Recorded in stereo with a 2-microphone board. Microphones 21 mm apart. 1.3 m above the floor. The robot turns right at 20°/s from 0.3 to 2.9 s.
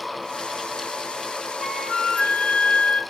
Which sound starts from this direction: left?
A flute, at 1.6 s.